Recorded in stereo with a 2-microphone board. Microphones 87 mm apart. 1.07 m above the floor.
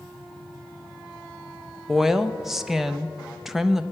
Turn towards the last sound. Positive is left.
turn(degrees=-5)  # may be behind; listen again after turning